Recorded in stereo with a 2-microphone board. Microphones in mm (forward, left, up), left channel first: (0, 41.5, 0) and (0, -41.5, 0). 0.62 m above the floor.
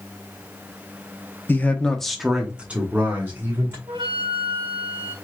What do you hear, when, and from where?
1.5 s a man speaking: 25° left (ahead or behind), 0.8 m; by 3.8 s 25° right (ahead or behind), 1.9 m
3.9 s a flute: 85° right, 1.3 m